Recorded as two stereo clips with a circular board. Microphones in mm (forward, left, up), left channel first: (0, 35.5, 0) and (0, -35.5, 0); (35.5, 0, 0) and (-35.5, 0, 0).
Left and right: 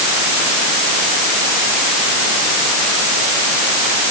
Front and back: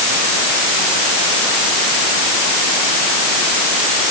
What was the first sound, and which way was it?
Only background noise.